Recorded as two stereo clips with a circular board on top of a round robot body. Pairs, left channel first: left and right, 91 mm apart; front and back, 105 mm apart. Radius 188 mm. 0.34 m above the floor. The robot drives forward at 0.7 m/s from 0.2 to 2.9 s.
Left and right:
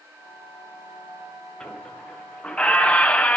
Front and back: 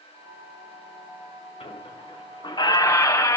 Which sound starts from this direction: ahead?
A squeak, at 1.6 s.